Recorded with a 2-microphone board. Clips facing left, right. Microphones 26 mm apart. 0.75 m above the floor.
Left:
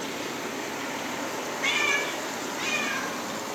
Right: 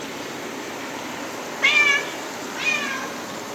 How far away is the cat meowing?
About 0.6 m.